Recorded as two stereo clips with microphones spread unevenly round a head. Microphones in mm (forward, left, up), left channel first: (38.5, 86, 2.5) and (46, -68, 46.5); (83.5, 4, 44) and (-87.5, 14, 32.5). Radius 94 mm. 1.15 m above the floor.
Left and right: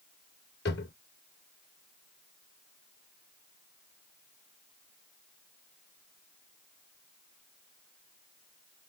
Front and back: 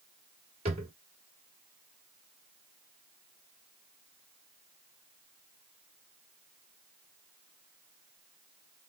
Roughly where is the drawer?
Behind left.